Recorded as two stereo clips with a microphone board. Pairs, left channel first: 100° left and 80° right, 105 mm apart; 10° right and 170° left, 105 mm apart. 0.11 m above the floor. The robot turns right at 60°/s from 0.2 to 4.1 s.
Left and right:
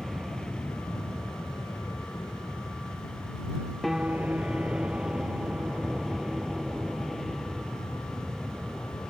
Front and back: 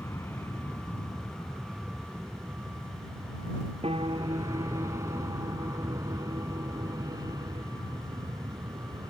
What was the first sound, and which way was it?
An aircraft, 15° left.